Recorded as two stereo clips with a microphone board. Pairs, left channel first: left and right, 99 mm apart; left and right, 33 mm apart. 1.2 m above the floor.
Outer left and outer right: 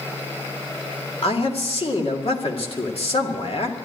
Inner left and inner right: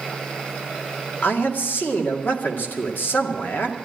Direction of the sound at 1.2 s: 80° left.